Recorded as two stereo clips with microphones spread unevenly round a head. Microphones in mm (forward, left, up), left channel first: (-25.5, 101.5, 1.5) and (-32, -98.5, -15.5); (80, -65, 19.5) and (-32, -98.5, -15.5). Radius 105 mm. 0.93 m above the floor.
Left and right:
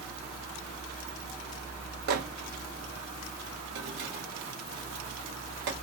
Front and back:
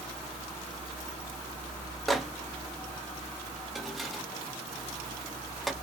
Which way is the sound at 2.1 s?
85° right.